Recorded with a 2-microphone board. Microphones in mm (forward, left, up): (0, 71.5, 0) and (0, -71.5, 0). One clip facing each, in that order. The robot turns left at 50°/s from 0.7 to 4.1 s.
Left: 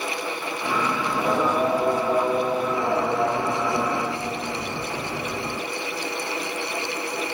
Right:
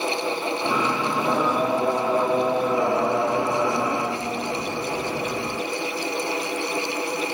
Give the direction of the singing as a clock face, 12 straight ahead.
11 o'clock.